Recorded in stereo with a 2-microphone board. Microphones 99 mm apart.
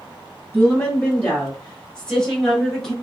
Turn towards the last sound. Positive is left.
turn(degrees=5)  # may be behind; listen again after turning